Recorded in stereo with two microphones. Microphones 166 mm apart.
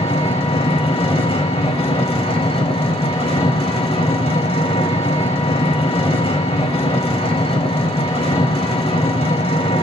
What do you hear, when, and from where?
0.0 s an engine running: 35° left (ahead or behind), 1.0 m